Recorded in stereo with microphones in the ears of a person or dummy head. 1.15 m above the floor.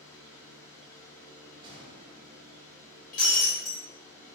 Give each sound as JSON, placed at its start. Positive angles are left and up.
{"t": 0.0, "sound": "a fan", "side_deg": 15, "distance_m": 1.1}
{"t": 1.6, "sound": "a gunshot", "side_deg": -30, "distance_m": 1.2}
{"t": 3.1, "sound": "breaking glass", "side_deg": 45, "distance_m": 1.9}